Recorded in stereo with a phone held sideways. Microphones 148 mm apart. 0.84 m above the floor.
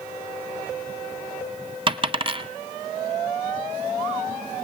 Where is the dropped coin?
35° right (ahead or behind), 0.9 m.